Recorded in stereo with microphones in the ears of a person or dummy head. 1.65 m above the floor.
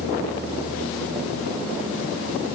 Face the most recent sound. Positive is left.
No sound to turn to.